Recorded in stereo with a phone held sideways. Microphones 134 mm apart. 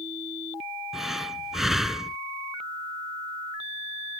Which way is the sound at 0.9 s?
Centre (ahead or behind).